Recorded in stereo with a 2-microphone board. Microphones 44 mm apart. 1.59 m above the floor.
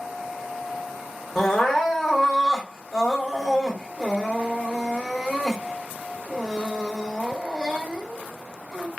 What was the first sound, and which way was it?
Crying, 5° left (ahead or behind).